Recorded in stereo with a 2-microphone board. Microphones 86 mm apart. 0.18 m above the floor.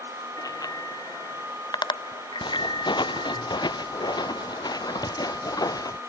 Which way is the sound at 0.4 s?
45° left (ahead or behind).